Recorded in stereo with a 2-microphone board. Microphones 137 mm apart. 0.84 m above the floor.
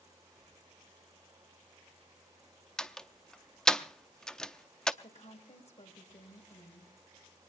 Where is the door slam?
5° left (ahead or behind), 0.7 m.